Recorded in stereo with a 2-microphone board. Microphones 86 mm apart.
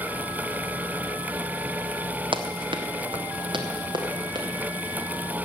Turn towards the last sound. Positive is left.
turn(degrees=-60)  # may be behind; listen again after turning